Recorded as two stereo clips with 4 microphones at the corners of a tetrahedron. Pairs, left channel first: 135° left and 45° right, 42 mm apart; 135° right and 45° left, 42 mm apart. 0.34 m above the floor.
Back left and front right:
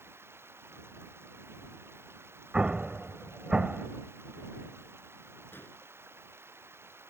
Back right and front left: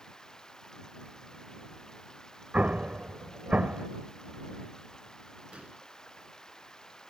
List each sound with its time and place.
0.0 s running water: 60° right
2.5 s an explosion: 10° left
5.5 s an explosion: 105° left